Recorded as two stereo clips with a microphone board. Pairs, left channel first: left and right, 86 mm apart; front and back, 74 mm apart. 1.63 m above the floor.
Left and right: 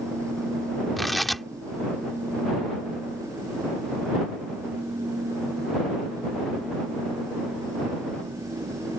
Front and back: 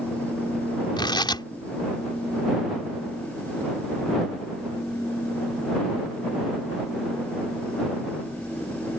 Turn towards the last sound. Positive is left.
turn(degrees=0)